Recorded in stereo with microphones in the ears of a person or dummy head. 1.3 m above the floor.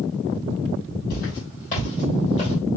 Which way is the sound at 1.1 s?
55° left (ahead or behind).